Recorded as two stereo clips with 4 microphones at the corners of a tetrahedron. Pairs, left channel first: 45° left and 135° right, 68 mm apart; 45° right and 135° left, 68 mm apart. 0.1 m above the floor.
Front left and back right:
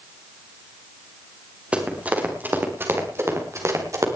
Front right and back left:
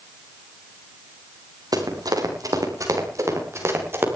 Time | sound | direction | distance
1.7 | running footsteps | 155° left | 4.5 m